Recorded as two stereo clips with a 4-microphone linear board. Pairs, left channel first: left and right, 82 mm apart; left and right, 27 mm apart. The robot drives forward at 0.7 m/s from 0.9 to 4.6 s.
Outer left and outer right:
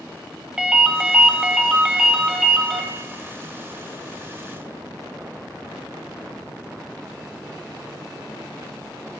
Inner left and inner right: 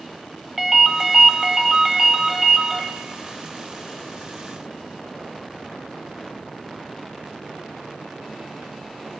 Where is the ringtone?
10° right (ahead or behind), 0.7 m; by 2.8 s 5° right (ahead or behind), 1.3 m.